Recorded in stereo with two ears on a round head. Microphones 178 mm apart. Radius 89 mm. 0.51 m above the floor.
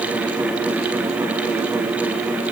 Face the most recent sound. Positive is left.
No sound to turn to.